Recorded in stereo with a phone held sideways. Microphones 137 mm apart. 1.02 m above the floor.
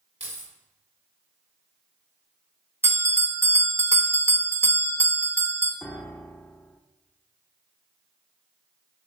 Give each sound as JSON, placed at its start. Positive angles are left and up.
{"t": 0.2, "sound": "keys jangling", "side_deg": -55, "distance_m": 3.0}
{"t": 2.8, "sound": "a bell", "side_deg": -20, "distance_m": 0.9}
{"t": 5.8, "sound": "a piano", "side_deg": 10, "distance_m": 0.6}